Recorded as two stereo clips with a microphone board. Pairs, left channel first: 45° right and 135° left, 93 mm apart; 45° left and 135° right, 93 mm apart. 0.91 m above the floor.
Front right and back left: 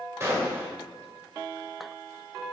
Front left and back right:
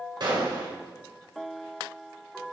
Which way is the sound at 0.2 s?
165° right.